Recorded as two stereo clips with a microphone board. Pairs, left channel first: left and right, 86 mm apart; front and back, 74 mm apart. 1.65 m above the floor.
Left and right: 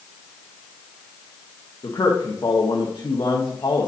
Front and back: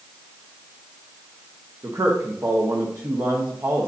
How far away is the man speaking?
About 1.0 m.